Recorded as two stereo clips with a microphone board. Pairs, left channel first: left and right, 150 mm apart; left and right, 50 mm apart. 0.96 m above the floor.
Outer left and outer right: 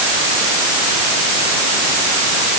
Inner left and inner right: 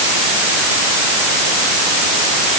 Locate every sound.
Only background noise.